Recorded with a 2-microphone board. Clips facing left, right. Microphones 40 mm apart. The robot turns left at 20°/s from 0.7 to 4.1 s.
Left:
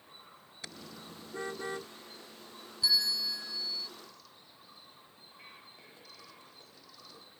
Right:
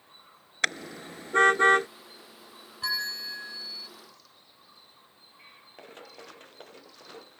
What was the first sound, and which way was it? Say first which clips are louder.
A car horn: right 17 dB; 85° right.